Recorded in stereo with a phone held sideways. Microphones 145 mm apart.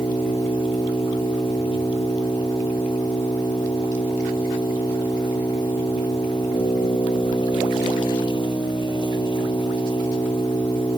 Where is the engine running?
30° left (ahead or behind).